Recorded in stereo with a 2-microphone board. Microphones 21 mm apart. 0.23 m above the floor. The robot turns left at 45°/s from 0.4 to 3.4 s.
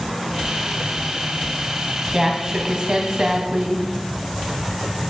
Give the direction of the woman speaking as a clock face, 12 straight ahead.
1 o'clock.